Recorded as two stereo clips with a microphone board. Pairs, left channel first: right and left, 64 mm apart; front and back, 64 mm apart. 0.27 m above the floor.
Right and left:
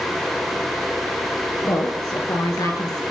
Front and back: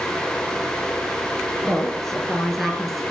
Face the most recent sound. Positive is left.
turn(degrees=-90)